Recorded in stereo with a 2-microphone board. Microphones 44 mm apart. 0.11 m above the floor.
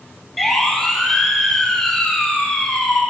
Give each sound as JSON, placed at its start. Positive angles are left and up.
{"t": 0.4, "sound": "a siren", "side_deg": 5, "distance_m": 3.0}